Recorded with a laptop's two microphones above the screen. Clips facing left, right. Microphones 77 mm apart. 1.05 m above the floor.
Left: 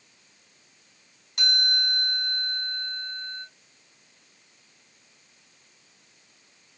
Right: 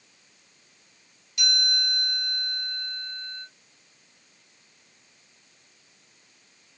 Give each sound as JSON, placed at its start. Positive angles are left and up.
{"t": 1.4, "sound": "a chime", "side_deg": 60, "distance_m": 3.0}